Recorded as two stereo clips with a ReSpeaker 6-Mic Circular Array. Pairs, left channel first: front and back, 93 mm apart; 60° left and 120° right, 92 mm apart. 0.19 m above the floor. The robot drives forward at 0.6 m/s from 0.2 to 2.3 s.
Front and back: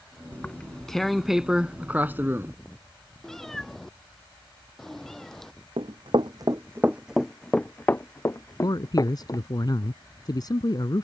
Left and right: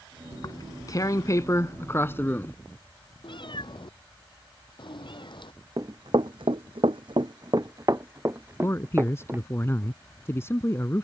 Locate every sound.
0.3 s tearing paper: 70° left; by 2.5 s 120° left
3.2 s a cat meowing: 85° left
5.8 s running footsteps: 165° right; by 9.4 s 50° right
8.6 s a man speaking: 10° left